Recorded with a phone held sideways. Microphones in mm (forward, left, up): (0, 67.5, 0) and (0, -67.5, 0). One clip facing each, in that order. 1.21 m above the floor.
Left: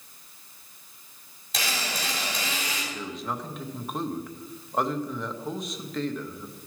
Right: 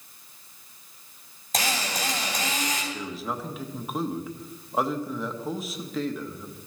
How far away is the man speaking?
About 1.0 m.